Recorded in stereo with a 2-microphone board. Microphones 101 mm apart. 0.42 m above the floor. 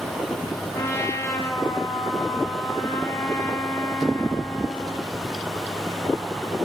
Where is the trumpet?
30° left (ahead or behind), 0.9 m.